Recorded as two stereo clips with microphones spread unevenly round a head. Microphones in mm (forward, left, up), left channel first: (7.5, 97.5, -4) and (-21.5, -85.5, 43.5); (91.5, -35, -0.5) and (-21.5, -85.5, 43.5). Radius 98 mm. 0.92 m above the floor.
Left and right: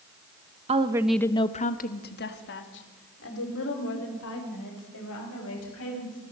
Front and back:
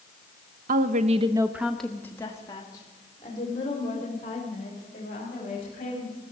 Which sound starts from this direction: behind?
A woman speaking, at 0.7 s.